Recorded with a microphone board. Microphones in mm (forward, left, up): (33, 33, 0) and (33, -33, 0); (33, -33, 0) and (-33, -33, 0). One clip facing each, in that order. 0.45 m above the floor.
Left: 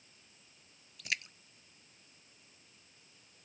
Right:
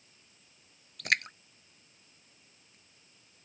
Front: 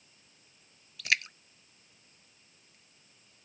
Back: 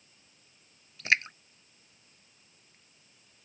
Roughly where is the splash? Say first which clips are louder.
Right 9 dB, back 3 dB; behind right.